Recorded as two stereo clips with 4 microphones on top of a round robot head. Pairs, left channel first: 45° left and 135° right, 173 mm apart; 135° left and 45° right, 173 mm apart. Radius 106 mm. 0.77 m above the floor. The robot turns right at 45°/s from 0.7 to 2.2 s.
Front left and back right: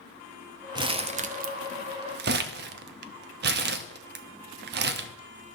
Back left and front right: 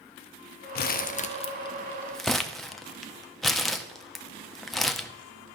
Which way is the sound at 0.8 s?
160° left.